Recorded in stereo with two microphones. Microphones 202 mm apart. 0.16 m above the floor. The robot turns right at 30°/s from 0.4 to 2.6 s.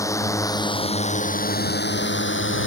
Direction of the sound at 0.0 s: 15° left.